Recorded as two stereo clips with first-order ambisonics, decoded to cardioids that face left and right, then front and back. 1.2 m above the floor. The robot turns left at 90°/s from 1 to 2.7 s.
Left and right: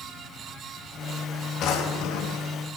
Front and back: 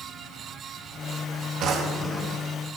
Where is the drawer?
135° left, 0.8 m; by 2.5 s 55° left, 0.8 m.